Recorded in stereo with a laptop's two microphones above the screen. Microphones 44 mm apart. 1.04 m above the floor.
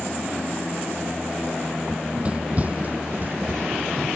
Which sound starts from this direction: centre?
Running footsteps, at 1.9 s.